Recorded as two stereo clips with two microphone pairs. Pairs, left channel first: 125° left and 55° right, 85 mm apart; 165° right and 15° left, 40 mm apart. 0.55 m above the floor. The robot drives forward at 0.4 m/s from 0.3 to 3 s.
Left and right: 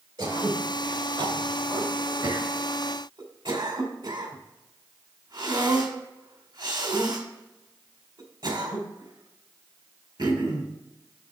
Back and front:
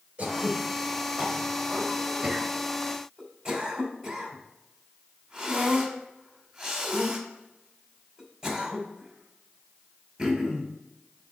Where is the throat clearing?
40° right, 2.5 m; by 10.7 s 65° right, 1.8 m.